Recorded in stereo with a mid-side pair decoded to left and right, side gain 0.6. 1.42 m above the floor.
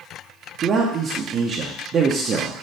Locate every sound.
0.6 s a man speaking: 45° right, 0.8 m